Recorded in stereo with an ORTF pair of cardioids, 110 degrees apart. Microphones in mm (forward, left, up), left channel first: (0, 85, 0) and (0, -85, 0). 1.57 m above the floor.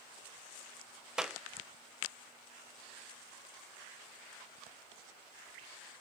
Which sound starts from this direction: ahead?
A clap, at 1.2 s.